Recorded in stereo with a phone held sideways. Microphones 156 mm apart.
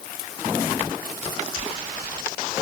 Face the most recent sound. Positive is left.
No sound to turn to.